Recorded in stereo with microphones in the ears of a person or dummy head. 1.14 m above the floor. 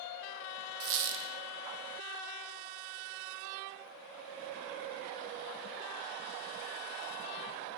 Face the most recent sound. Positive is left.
turn(degrees=-70)  # may be behind; listen again after turning